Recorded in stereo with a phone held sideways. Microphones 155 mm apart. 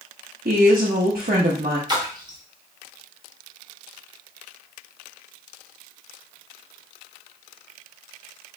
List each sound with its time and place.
0.5 s a woman speaking: 75° right (ahead or behind), 0.7 m
1.9 s a splash: 25° right (ahead or behind), 0.8 m